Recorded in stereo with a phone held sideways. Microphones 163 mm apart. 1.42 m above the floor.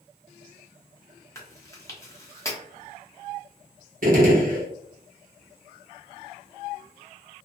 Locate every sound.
1.4 s chewing: 20° left (ahead or behind), 0.8 m
4.0 s a gunshot: 55° right (ahead or behind), 0.9 m